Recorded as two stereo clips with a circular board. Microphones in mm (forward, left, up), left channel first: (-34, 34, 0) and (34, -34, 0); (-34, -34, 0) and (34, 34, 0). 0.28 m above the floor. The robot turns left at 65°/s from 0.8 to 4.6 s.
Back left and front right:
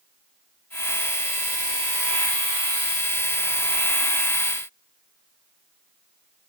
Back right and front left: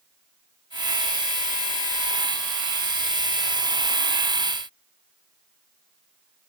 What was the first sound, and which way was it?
Only background noise.